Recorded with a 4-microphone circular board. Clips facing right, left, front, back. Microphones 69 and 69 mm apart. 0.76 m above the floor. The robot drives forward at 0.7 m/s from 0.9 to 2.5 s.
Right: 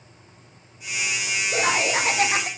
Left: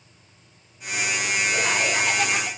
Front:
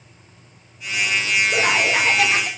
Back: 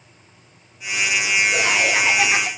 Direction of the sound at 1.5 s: 50° right.